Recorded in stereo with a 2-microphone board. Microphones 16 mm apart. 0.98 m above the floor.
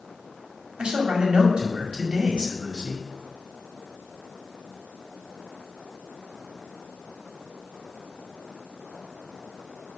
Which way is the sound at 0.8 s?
85° right.